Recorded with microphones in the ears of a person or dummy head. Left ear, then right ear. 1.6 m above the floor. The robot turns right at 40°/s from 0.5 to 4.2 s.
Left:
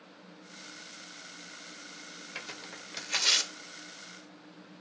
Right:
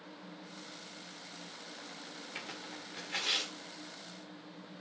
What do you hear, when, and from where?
2.4 s tearing paper: 15° left (ahead or behind), 1.5 m; by 3.5 s 60° left (ahead or behind), 1.5 m